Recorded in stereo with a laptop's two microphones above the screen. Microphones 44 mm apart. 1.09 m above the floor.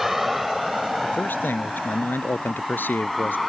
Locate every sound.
0.0 s a vehicle: 5° right (ahead or behind); by 3.5 s centre (ahead or behind)
1.0 s a man speaking: 50° left (ahead or behind)